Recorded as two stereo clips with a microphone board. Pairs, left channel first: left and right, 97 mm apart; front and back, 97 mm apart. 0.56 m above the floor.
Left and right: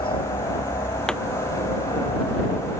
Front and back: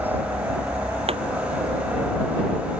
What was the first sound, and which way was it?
A helicopter, 110° left.